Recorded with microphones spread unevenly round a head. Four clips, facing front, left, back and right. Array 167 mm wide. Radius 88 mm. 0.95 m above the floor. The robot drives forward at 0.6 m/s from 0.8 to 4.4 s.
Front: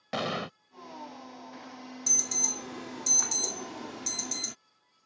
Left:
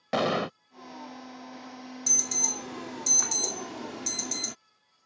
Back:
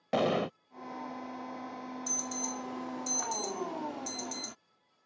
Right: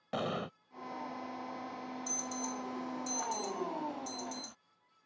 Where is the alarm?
45° left; by 4.5 s 80° left.